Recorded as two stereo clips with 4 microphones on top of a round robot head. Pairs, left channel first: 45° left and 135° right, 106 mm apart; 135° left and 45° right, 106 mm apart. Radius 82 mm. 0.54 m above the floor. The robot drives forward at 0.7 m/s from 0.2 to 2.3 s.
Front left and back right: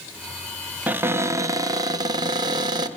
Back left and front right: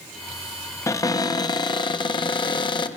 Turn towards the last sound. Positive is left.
turn(degrees=175)